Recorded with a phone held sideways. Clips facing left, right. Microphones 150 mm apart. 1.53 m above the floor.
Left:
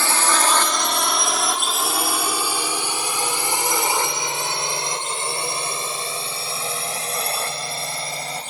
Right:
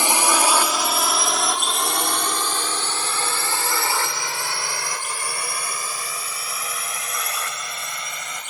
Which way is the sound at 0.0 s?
15° right (ahead or behind).